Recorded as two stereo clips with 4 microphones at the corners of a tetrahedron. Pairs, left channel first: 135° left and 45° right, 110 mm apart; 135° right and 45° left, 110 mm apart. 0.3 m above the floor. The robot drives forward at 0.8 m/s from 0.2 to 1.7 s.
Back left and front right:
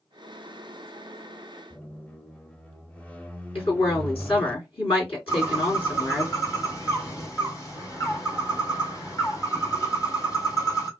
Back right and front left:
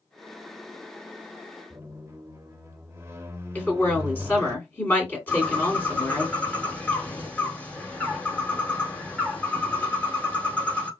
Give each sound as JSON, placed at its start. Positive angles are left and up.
{"t": 1.7, "sound": "a squeak", "azimuth_deg": 75, "distance_m": 0.5}
{"t": 3.5, "sound": "a woman speaking", "azimuth_deg": 155, "distance_m": 3.0}
{"t": 5.3, "sound": "a bird", "azimuth_deg": 160, "distance_m": 1.4}